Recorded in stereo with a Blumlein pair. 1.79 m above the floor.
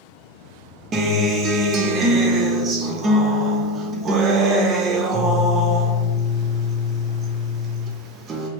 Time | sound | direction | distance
0.9 | a guitar | 25° right | 0.6 m